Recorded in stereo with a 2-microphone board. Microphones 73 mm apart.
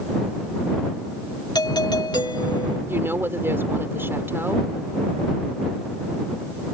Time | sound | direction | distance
1.6 | a doorbell | 75° left (ahead or behind) | ?
2.9 | a woman speaking | 30° right (ahead or behind) | ?